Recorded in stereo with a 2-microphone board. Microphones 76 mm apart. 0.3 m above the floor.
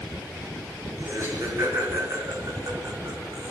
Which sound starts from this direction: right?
Laughter, at 1.0 s.